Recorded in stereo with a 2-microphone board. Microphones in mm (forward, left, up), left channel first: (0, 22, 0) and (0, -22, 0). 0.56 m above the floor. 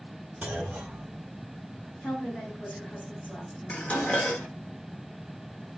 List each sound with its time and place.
0.4 s a clunk: 30° right (ahead or behind), 1.1 m
2.0 s a woman speaking: 55° left (ahead or behind), 2.5 m
3.7 s dishes clattering: 40° left (ahead or behind), 0.9 m